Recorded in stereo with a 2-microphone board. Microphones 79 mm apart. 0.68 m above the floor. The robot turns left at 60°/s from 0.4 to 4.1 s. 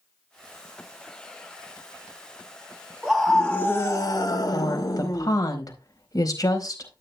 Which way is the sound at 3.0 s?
165° right.